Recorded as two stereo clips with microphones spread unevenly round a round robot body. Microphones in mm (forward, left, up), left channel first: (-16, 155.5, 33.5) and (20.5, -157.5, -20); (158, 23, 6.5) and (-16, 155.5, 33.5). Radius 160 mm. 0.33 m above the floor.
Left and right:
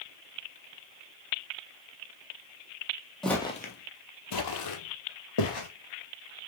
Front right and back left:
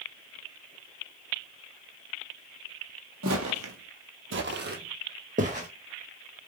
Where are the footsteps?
Straight behind, 0.7 m; by 5.7 s 85° left, 1.6 m.